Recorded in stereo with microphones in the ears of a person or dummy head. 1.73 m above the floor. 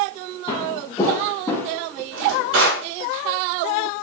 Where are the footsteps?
20° left (ahead or behind), 2.5 m; by 2.0 s 5° left (ahead or behind), 3.5 m.